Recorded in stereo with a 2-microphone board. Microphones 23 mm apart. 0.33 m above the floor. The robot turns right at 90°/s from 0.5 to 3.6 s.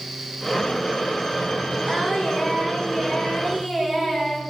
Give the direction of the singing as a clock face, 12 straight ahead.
11 o'clock.